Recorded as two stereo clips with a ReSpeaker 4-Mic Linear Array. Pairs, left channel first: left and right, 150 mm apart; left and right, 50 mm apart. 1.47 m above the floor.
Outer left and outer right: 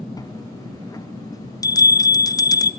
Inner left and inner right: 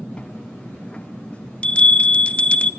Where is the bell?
20° left (ahead or behind), 0.5 m.